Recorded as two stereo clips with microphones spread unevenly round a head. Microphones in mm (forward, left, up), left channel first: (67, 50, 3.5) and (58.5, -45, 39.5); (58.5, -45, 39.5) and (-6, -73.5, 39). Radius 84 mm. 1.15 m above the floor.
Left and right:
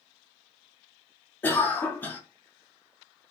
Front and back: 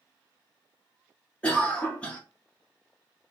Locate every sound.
1.4 s a cough: 95° left, 0.8 m